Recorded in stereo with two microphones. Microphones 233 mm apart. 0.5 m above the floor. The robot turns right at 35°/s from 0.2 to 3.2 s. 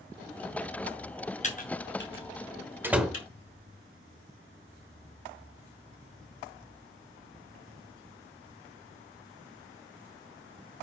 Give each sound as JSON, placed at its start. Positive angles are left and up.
{"t": 1.4, "sound": "typing on a keyboard", "side_deg": 30, "distance_m": 3.0}
{"t": 2.8, "sound": "a door slam", "side_deg": -10, "distance_m": 1.2}